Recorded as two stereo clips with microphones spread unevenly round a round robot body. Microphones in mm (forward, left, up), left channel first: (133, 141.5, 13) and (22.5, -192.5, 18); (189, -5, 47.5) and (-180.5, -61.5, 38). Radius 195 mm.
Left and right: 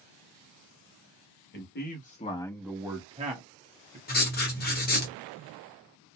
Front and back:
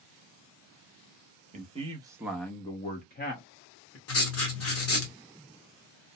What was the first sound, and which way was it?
A man speaking, 125° left.